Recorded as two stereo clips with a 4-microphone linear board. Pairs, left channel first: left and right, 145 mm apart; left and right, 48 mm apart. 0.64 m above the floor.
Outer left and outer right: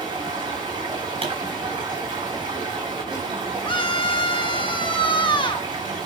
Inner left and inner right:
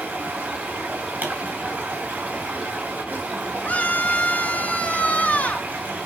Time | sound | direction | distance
0.0 | running water | 35° right (ahead or behind) | 4 m
1.2 | a pop | 40° right (ahead or behind) | 5 m
3.6 | a scream | 35° left (ahead or behind) | 1.2 m